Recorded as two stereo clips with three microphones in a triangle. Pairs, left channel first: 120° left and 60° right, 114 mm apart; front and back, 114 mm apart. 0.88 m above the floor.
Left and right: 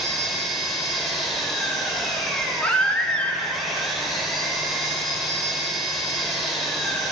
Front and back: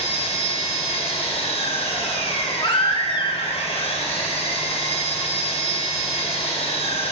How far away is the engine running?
About 2.5 m.